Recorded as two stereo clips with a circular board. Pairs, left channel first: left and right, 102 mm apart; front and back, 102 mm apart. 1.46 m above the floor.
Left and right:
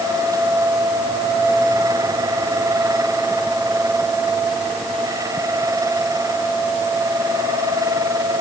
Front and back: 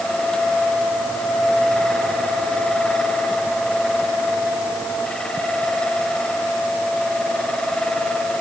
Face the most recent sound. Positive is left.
No sound to turn to.